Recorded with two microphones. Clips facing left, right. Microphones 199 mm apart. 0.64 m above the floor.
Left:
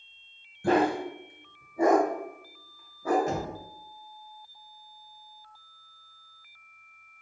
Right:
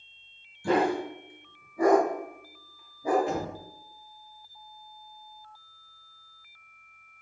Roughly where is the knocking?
Left.